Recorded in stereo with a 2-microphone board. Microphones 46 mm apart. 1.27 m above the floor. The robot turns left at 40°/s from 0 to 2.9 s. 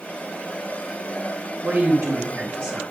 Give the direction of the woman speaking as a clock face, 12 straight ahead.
3 o'clock.